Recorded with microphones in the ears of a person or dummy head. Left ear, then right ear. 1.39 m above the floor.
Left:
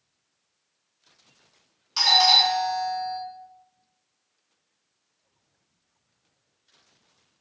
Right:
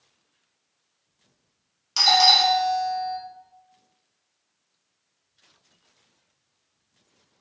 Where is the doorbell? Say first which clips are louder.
Right 1 dB; 15° right (ahead or behind), 0.9 m.